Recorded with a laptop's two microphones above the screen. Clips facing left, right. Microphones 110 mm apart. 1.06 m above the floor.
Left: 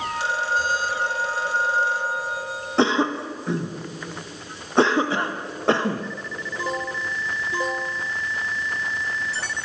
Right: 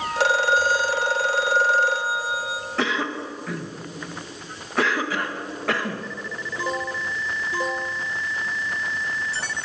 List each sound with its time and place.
0.2 s a phone ringing: 85° right, 2.5 m
2.8 s a cough: 25° left (ahead or behind), 0.6 m